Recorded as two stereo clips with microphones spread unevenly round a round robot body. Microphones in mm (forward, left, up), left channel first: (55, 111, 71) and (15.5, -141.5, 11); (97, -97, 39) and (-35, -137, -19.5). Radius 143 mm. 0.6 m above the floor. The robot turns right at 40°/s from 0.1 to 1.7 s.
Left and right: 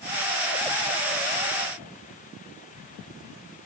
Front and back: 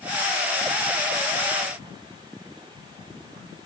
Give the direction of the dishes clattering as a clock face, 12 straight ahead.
I don't hear dishes clattering.